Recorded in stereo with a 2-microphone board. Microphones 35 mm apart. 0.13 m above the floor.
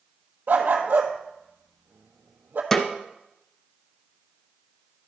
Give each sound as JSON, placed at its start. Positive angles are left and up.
{"t": 0.5, "sound": "a dog barking", "side_deg": -60, "distance_m": 1.2}
{"t": 2.7, "sound": "a snare drum", "side_deg": 10, "distance_m": 1.0}